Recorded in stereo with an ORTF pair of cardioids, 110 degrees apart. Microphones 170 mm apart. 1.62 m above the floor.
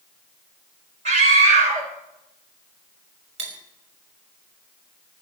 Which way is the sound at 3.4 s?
40° right.